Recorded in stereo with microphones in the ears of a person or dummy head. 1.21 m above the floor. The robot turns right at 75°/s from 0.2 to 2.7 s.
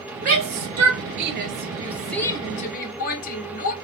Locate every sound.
0.2 s a shout: 40° right (ahead or behind), 1.4 m; by 3.7 s 45° left (ahead or behind), 1.4 m